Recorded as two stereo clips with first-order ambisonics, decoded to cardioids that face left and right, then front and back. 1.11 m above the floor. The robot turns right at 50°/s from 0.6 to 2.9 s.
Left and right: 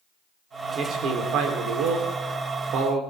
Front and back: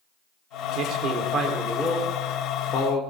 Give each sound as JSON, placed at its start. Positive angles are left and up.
{"t": 0.8, "sound": "a man speaking", "azimuth_deg": -145, "distance_m": 3.5}